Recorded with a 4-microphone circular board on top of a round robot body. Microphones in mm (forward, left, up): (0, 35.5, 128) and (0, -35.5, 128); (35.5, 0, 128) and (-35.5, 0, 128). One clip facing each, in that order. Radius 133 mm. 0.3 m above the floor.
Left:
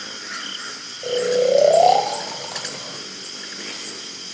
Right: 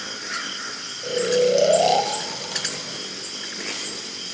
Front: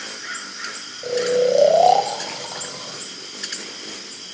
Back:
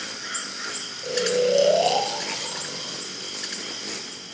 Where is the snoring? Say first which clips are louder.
Left 1 dB, front 4 dB; 40° left, 2.5 m.